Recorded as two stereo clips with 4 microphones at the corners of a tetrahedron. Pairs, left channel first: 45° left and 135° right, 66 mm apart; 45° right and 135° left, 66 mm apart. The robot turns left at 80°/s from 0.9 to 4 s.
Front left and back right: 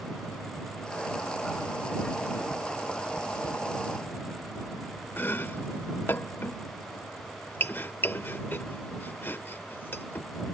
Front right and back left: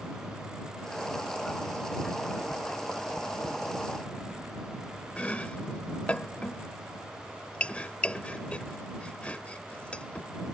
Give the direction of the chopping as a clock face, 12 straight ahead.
12 o'clock.